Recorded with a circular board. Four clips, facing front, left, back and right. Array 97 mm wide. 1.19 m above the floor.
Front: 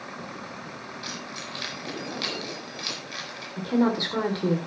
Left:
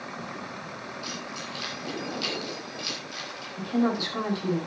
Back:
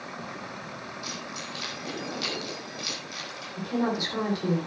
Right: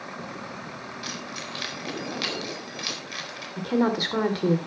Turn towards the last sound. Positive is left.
turn(degrees=-70)